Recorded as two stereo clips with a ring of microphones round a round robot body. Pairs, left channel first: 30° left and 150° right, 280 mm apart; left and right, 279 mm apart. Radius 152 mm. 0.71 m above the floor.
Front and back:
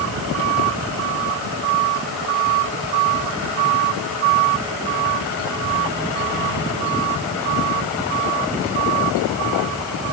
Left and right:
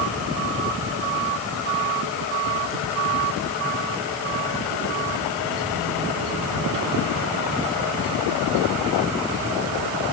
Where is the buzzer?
I don't hear a buzzer.